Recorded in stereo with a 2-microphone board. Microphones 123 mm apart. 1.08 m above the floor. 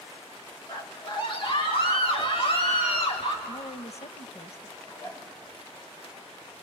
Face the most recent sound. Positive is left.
turn(degrees=25)  # may be behind; listen again after turning